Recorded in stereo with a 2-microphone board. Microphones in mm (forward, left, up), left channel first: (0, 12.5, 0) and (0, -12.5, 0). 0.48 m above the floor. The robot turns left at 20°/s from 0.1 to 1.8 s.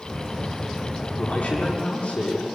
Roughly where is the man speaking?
Left.